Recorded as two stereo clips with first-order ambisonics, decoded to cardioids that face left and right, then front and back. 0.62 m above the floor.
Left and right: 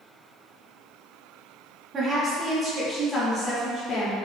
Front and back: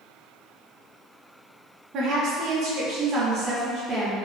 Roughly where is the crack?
I don't hear a crack.